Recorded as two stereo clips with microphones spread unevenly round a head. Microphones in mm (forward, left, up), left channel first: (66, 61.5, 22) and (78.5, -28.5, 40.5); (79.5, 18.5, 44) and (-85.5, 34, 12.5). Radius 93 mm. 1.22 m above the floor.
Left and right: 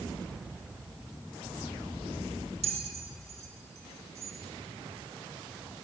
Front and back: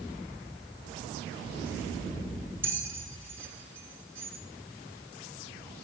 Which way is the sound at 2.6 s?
110° right.